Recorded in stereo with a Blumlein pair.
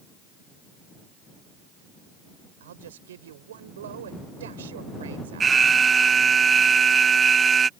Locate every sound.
2.6 s a man speaking: 60° right
5.4 s an alarm: 15° right